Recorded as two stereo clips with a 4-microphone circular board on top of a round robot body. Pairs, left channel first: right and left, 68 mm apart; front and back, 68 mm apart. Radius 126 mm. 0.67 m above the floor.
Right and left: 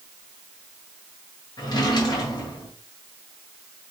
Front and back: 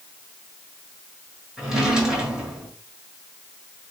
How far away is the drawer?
About 1.5 m.